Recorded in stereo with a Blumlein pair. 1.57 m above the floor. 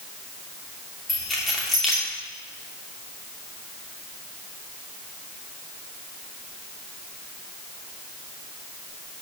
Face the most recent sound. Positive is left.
turn(degrees=10)